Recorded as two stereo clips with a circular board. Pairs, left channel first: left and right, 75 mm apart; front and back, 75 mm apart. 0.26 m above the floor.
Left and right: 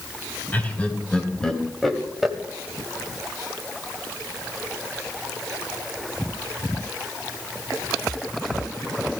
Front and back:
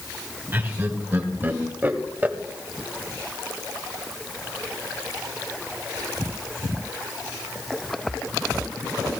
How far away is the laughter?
About 1.9 m.